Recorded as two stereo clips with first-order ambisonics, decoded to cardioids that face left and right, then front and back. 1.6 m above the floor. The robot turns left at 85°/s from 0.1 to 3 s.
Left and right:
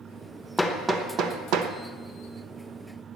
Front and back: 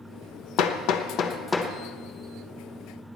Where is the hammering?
5° left, 1.0 m; by 1.7 s 90° right, 1.0 m.